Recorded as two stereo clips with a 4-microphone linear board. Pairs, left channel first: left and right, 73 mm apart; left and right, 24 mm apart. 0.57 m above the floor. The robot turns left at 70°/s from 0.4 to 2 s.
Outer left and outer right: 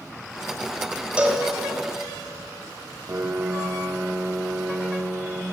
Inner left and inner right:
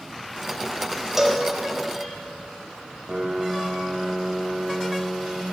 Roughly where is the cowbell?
Centre.